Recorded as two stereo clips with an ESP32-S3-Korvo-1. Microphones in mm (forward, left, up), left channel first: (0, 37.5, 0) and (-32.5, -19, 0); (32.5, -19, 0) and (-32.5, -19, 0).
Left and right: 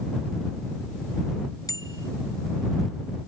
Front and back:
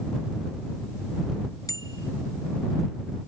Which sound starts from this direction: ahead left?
A bicycle bell, at 1.7 s.